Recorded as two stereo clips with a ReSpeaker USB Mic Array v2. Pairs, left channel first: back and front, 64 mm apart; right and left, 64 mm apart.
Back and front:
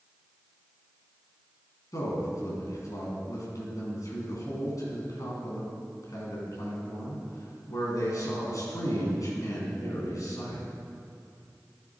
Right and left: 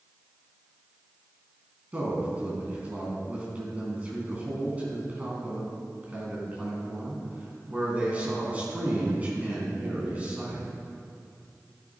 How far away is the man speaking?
About 3.5 m.